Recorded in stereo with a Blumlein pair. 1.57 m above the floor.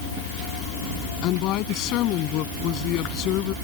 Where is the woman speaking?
40° left.